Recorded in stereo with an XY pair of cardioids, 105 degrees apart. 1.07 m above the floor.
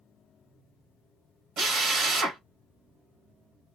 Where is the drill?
70° right, 1.3 m.